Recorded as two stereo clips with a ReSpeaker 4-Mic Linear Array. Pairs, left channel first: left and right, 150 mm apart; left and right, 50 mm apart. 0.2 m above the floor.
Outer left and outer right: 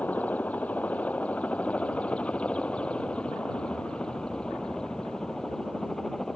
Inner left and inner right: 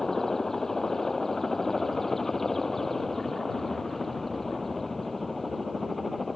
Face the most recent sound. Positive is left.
turn(degrees=5)  # may be behind; listen again after turning